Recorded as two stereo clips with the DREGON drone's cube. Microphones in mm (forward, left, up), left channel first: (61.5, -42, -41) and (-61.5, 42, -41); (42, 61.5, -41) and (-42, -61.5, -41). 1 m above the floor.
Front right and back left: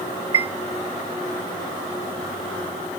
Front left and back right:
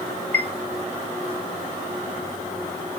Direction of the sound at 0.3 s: 160° right.